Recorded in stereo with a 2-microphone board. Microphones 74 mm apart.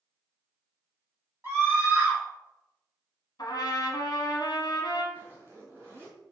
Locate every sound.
1.4 s a scream: 25° right (ahead or behind), 1.3 m
3.4 s a trumpet: 65° left (ahead or behind), 0.7 m
5.1 s a zipper: 25° right (ahead or behind), 1.2 m